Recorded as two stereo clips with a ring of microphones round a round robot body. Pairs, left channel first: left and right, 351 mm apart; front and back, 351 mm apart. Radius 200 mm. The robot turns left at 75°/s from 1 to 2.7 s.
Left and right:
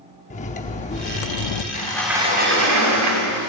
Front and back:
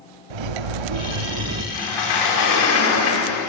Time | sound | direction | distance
0.3 | cutlery clinking | 165° left | 0.7 m
1.7 | a sliding door | 25° left | 6.5 m